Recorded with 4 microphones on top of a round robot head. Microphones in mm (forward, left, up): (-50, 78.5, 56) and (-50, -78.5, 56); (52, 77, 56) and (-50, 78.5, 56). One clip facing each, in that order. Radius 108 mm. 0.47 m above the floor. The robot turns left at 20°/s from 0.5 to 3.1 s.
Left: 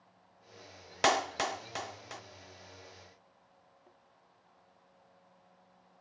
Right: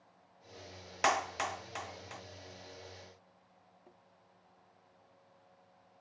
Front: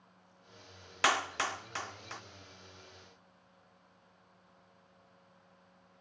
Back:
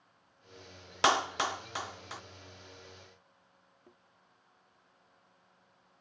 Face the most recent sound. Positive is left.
turn(degrees=-165)